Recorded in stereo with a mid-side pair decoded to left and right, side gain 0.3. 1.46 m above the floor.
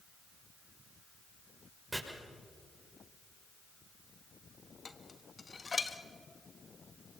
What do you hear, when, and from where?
1.9 s chopping: 15° right, 6.5 m
4.8 s dishes clattering: 45° left, 1.6 m